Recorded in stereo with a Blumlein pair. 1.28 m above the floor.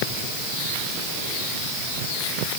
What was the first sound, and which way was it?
Only background noise.